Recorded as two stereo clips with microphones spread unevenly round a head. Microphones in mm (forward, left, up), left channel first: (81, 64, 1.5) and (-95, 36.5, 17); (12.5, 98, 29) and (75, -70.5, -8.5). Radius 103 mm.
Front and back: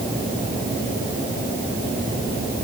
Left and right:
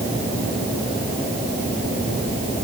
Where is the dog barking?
No dog barking in this recording.